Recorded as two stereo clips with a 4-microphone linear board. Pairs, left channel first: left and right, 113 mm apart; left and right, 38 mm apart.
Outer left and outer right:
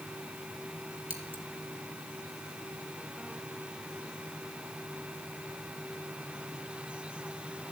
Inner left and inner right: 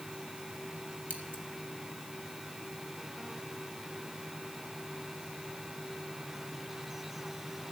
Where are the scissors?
55° right (ahead or behind), 2.5 m.